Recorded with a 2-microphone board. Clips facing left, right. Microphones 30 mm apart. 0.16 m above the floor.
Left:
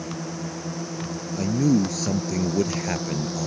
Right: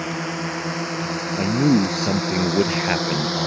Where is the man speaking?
35° right (ahead or behind).